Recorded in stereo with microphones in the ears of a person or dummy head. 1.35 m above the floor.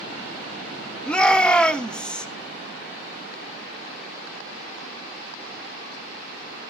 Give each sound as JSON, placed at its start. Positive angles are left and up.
{"t": 1.1, "sound": "a shout", "side_deg": 10, "distance_m": 2.0}